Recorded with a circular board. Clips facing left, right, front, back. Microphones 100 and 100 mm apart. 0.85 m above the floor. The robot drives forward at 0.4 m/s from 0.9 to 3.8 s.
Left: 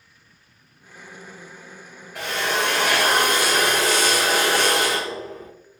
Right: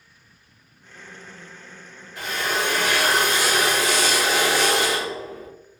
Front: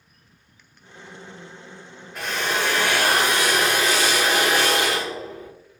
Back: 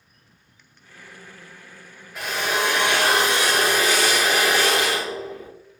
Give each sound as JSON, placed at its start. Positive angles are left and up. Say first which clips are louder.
{"t": 2.1, "sound": "a drill", "louder": "left 2 dB, back 1 dB", "azimuth_deg": 90, "distance_m": 0.8}